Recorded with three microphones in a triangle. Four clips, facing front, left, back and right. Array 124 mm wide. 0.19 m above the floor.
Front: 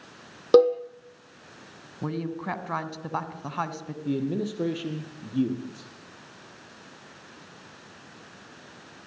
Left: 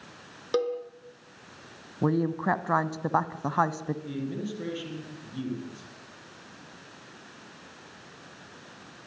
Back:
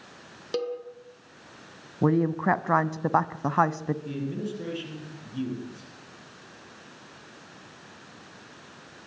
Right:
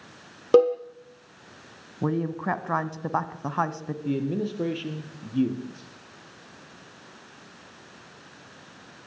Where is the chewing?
I don't hear chewing.